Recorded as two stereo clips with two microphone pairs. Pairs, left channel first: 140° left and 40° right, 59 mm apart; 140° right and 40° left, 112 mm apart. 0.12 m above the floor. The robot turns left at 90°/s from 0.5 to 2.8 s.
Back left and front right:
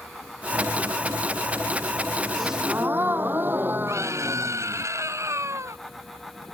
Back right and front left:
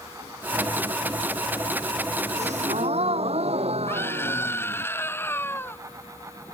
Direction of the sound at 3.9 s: 70° right.